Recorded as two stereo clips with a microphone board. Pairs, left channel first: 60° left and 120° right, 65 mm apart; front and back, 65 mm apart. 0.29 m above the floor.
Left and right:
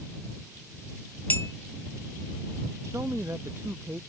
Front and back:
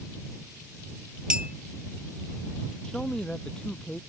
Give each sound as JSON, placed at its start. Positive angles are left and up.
{"t": 1.3, "sound": "a clink", "azimuth_deg": 110}
{"t": 2.8, "sound": "a man speaking", "azimuth_deg": -80}